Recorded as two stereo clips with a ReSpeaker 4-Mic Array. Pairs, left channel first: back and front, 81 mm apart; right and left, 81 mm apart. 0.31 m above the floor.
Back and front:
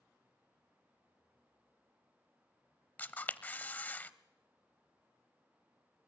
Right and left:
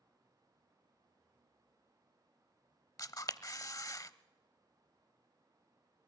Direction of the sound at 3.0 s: 115° right.